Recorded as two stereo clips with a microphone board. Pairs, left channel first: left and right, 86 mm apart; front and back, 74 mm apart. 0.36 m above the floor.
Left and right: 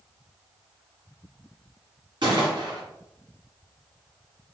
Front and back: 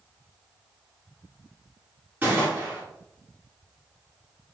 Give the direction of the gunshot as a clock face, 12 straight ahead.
4 o'clock.